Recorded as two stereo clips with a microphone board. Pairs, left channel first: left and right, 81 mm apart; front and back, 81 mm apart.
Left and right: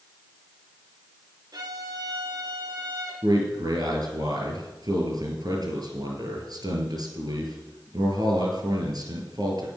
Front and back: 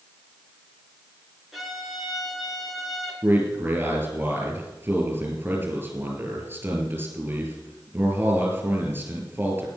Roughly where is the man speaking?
Behind right.